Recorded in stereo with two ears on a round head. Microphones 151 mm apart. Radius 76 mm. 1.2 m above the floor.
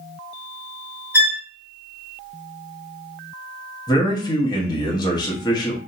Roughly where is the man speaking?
Left.